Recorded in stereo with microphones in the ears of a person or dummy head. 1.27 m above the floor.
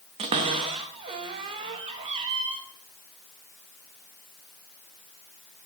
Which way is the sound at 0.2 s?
25° right (ahead or behind).